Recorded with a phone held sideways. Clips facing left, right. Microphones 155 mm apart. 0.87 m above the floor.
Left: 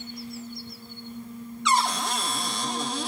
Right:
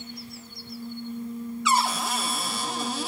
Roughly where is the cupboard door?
Centre.